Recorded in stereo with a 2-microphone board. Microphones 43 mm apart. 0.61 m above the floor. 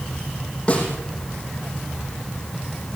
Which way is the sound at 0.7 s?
30° left (ahead or behind).